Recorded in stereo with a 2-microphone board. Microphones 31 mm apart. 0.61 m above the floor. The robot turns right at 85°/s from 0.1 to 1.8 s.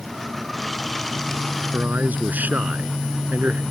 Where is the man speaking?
70° right (ahead or behind); by 3.6 s 75° right (ahead or behind).